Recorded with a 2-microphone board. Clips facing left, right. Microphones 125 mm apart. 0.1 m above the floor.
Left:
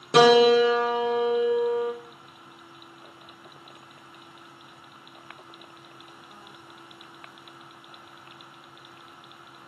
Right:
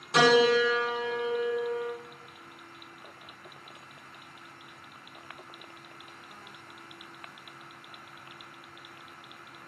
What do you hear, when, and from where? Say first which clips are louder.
0.1 s a piano: left 6 dB; 65° left (ahead or behind), 1.4 m